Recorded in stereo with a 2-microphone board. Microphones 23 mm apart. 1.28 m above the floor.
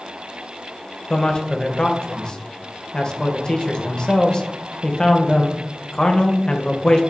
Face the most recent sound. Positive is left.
turn(degrees=35)  # may be behind; listen again after turning